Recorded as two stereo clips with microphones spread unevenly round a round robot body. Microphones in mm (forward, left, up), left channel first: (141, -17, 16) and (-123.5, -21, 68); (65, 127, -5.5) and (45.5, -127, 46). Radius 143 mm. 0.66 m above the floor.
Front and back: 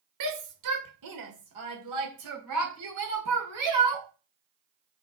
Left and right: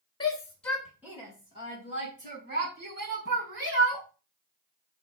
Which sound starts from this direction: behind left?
A shout, at 0.2 s.